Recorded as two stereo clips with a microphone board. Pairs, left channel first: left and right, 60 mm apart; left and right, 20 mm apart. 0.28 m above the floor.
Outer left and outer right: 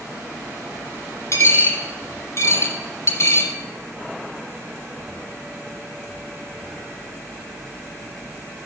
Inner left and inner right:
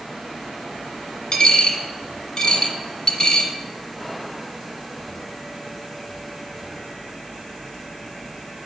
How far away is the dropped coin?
About 1.2 m.